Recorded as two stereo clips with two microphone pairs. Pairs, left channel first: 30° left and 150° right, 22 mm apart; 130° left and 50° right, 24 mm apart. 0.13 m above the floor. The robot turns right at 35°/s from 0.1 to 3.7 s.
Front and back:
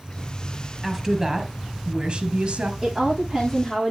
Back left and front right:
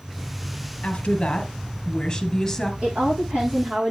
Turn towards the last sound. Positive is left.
turn(degrees=-40)